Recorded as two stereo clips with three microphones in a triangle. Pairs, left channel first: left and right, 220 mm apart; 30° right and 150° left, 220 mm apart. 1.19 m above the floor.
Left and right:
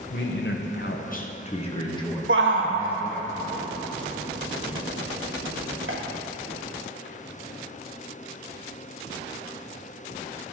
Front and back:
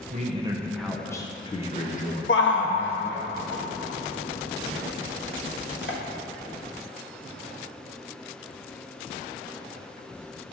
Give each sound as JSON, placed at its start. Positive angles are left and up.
{"t": 0.1, "sound": "a man speaking", "azimuth_deg": 105, "distance_m": 0.7}
{"t": 2.3, "sound": "a shout", "azimuth_deg": -60, "distance_m": 1.2}